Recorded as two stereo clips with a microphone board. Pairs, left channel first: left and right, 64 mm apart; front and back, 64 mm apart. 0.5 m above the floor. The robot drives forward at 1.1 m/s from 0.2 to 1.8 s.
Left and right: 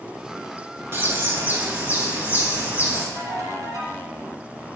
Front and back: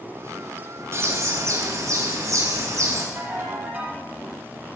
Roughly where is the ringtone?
Behind right.